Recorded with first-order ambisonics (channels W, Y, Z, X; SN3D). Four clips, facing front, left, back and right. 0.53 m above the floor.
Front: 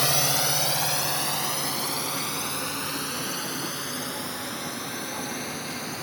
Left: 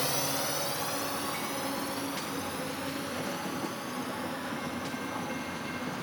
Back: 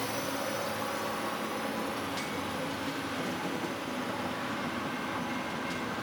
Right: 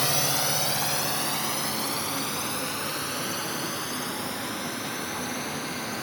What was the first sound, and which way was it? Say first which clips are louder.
A drone: right 5 dB, front 9 dB; 25° right.